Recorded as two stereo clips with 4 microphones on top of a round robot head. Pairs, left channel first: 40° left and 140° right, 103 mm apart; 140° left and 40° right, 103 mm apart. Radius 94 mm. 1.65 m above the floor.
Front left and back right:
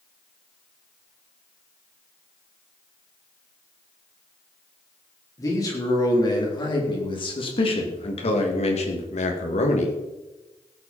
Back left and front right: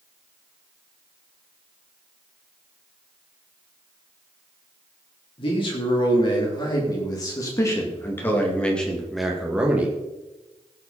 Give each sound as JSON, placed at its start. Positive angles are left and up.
{"t": 5.4, "sound": "a man speaking", "azimuth_deg": 100, "distance_m": 4.5}